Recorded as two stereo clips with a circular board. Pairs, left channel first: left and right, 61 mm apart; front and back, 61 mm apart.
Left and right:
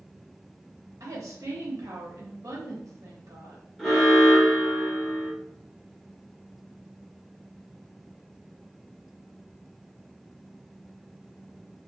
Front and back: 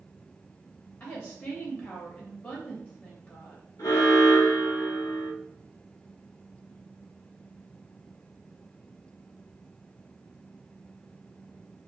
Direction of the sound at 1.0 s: 60° right.